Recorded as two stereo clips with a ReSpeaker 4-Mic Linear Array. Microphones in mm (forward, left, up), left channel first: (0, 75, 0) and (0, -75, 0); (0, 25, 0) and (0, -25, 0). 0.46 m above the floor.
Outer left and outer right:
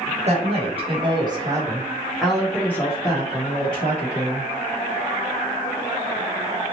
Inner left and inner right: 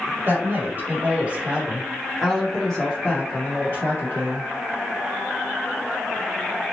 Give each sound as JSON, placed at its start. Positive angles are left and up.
{"t": 0.3, "sound": "a woman speaking", "side_deg": -45, "distance_m": 1.4}